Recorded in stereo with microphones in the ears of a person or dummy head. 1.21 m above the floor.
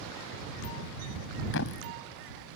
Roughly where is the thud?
Left.